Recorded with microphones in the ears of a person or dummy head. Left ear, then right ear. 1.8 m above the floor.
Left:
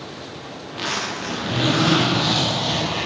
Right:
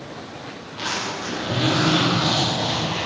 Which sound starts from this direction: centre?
A zipper, at 0.6 s.